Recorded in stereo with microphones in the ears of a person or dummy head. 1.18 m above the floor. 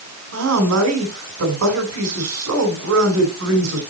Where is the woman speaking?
80° right, 4 m.